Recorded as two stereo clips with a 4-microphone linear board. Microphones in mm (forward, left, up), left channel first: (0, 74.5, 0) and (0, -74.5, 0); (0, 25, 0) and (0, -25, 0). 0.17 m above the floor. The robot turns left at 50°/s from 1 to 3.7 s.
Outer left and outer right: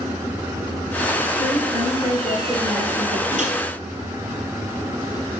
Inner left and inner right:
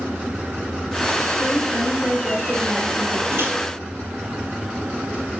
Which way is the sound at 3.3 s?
60° right (ahead or behind).